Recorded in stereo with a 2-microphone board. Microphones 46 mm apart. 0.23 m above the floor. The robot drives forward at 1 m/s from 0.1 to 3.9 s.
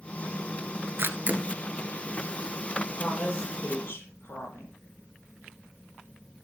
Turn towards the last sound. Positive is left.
turn(degrees=40)  # may be behind; listen again after turning